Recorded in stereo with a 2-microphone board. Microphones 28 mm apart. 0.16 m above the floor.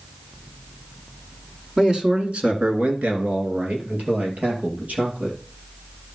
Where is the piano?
I don't hear a piano.